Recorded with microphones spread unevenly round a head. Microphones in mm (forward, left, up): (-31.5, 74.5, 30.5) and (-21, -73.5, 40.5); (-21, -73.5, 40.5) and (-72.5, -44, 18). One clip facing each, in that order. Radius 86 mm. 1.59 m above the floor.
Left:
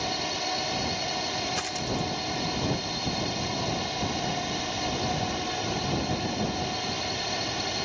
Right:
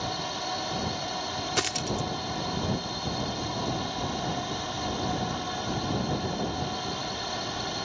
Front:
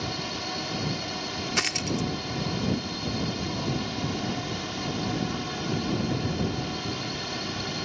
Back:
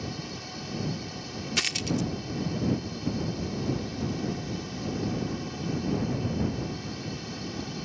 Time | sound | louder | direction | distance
0.0 | a drone | left 2 dB, front 5 dB | 15° left | ?
1.6 | a dropped coin | even, even | 65° right | ?